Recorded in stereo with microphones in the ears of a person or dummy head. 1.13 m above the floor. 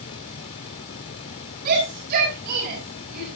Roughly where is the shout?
Right.